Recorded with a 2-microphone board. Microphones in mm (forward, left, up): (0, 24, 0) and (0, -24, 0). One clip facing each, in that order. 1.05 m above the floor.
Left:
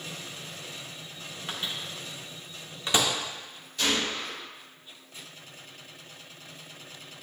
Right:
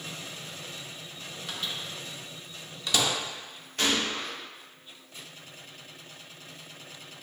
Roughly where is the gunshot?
Right.